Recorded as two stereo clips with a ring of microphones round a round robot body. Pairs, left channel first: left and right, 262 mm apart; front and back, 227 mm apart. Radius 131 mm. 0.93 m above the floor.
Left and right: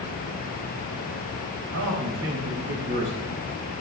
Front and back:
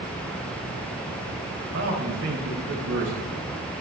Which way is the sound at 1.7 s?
130° right.